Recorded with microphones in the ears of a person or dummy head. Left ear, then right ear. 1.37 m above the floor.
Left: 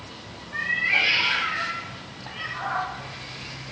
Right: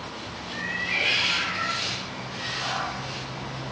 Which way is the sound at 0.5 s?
45° left (ahead or behind).